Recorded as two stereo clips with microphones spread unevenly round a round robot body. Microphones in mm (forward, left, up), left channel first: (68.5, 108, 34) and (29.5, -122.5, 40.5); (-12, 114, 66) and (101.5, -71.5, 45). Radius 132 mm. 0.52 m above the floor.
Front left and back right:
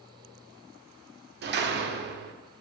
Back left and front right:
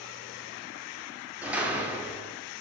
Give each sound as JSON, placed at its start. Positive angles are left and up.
{"t": 1.4, "sound": "a door slam", "azimuth_deg": -140, "distance_m": 1.1}